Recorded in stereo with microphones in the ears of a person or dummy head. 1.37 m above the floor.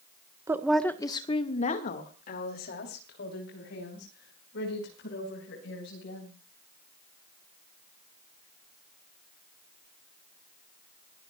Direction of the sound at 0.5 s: 10° right (ahead or behind).